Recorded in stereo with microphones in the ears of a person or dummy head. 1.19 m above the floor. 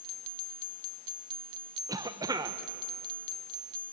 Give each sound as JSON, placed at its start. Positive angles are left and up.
{"t": 1.9, "sound": "a cough", "side_deg": -20, "distance_m": 0.9}